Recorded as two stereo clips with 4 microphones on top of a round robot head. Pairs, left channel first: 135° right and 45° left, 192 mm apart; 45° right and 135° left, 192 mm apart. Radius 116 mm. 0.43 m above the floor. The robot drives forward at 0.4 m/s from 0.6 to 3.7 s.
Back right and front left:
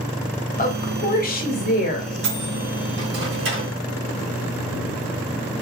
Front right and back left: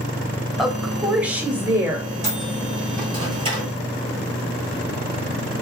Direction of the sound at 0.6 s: 135° right.